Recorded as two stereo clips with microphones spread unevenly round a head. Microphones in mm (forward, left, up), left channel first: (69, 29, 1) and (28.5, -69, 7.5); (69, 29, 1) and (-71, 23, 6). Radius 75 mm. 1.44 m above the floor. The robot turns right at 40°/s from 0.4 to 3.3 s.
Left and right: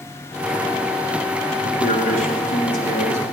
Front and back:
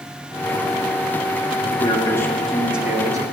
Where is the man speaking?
55° left, 3 m; by 3.2 s 120° left, 3 m.